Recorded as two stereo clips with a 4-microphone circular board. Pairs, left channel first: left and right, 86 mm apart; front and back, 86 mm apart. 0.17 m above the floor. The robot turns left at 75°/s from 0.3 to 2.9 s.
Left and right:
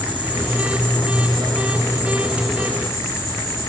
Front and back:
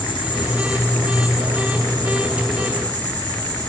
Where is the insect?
15° right, 7 m; by 3.7 s 150° left, 7 m.